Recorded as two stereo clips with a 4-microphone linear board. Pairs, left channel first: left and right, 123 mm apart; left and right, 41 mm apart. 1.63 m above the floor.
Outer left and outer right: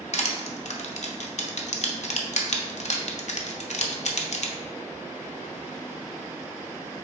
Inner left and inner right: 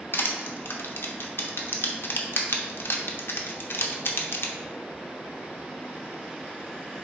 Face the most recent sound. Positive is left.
turn(degrees=70)  # may be behind; listen again after turning